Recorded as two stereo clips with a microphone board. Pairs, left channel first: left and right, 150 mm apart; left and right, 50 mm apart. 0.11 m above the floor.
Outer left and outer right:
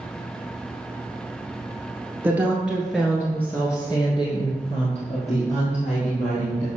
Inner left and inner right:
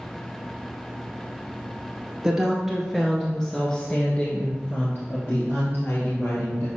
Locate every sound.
2.2 s a woman speaking: 10° right (ahead or behind), 1.5 m; by 6.7 s 60° left (ahead or behind), 2 m